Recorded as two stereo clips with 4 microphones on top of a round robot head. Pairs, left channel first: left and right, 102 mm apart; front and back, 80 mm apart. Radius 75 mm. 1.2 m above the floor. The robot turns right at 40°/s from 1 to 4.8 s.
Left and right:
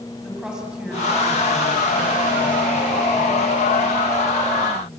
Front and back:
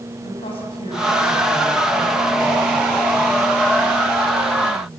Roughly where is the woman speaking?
Ahead.